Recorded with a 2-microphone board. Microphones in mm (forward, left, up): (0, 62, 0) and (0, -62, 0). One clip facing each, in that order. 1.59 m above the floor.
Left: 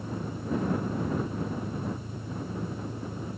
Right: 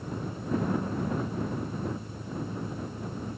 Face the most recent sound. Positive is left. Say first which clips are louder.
# left 1 dB
turn(degrees=10)  # may be behind; listen again after turning